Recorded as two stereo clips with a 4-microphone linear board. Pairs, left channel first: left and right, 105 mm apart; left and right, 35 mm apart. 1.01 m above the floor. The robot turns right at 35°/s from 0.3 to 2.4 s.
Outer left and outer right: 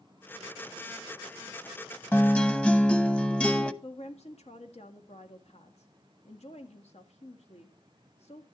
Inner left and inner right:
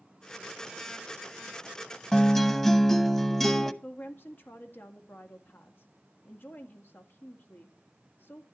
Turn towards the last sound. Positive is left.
turn(degrees=70)  # may be behind; listen again after turning